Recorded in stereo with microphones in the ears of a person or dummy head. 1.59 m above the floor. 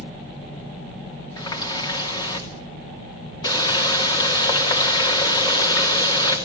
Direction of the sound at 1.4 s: 25° left (ahead or behind).